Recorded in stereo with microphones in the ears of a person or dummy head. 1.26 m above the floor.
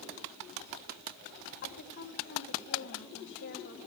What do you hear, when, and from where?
1.6 s a woman speaking: 55° left (ahead or behind), 4 m